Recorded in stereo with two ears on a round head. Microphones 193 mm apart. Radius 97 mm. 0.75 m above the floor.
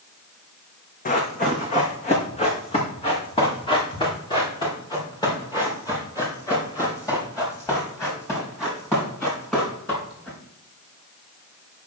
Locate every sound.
1.1 s running footsteps: 40° left (ahead or behind), 2.5 m; by 10.4 s 10° left (ahead or behind), 7 m